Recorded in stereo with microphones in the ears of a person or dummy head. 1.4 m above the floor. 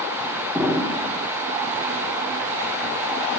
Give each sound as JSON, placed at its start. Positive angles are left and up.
{"t": 0.6, "sound": "an explosion", "side_deg": 0, "distance_m": 1.3}